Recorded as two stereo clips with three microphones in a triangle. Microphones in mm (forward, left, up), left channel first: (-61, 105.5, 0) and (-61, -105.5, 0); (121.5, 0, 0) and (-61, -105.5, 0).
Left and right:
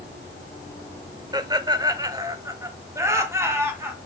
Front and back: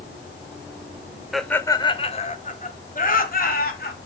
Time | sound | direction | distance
1.3 | laughter | 65° right | 0.8 m